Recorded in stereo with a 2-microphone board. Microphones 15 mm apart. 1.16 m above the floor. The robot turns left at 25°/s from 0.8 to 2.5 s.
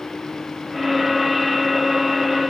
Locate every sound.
Only background noise.